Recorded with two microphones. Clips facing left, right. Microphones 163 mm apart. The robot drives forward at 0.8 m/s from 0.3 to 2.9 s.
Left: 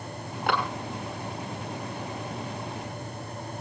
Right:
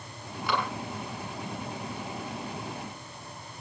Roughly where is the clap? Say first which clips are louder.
Left 3 dB; left.